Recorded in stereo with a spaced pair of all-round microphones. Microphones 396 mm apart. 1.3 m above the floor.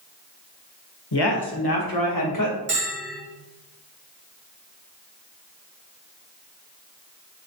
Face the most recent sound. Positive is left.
turn(degrees=-30)  # may be behind; listen again after turning